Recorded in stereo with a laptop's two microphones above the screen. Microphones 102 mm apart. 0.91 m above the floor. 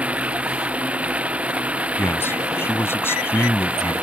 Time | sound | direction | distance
0.0 | running water | 15° right (ahead or behind) | ?
2.0 | a man speaking | 25° left (ahead or behind) | ?